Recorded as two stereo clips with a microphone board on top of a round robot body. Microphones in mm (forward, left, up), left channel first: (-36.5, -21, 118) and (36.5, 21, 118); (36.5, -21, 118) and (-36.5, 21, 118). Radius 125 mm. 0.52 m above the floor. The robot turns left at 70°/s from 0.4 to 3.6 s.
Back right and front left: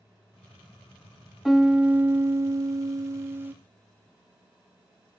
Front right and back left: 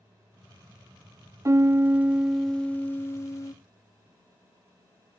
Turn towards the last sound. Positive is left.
turn(degrees=-25)